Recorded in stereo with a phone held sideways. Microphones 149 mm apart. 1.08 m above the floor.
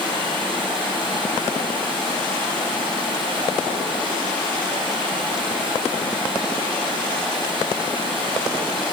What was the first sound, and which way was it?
Running water, 35° right (ahead or behind).